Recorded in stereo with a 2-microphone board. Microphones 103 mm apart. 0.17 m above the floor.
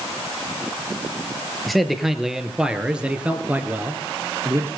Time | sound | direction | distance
1.7 | a man speaking | centre (ahead or behind) | 3.5 m